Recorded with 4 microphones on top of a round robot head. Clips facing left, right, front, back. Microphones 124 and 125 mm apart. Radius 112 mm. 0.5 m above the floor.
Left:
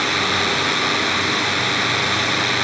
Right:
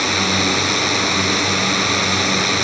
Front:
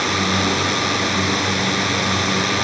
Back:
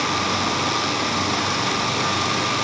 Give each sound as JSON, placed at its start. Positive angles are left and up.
{"t": 0.0, "sound": "a drone", "azimuth_deg": -40}